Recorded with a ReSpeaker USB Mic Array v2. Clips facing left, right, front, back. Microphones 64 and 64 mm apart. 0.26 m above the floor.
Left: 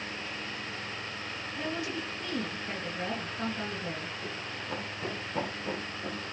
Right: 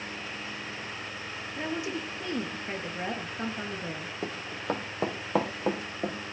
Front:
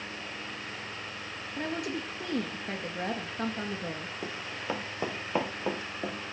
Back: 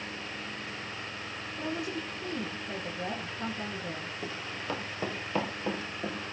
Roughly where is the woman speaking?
Ahead.